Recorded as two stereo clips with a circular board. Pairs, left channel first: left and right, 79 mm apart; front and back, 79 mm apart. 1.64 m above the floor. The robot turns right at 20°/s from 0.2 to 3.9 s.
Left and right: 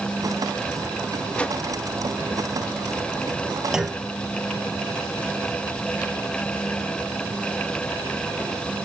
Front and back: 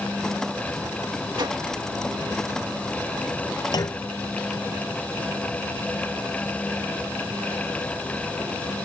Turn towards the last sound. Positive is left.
turn(degrees=-5)